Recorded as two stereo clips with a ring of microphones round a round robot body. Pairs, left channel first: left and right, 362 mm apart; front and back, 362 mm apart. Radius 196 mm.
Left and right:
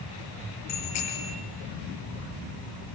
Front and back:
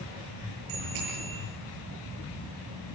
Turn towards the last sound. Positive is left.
turn(degrees=140)